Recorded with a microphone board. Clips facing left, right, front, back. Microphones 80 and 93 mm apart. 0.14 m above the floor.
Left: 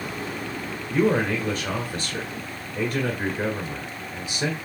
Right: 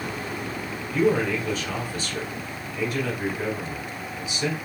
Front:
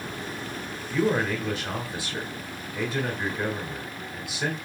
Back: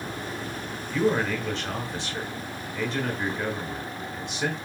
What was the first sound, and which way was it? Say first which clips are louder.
A man speaking: even, even; 80° left.